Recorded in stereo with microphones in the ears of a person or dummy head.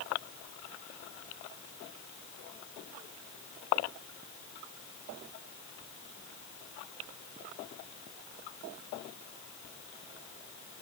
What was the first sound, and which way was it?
Only background noise.